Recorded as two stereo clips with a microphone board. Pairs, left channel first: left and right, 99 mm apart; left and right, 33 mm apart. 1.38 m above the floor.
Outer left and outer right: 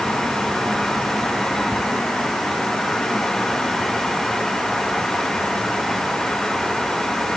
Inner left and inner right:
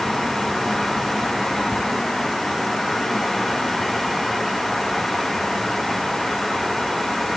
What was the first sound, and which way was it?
Only background noise.